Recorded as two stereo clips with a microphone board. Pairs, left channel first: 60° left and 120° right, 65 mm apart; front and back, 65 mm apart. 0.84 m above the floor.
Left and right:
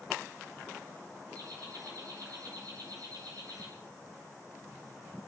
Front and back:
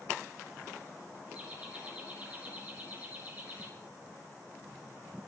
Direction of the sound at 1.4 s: 110° right.